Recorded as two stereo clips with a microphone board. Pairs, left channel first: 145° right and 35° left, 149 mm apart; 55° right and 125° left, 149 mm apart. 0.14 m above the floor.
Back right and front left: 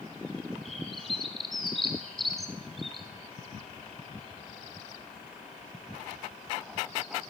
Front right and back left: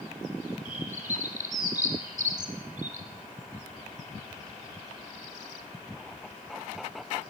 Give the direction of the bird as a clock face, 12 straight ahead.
8 o'clock.